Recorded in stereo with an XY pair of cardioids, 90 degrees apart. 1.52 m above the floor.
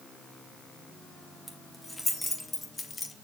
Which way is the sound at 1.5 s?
15° left.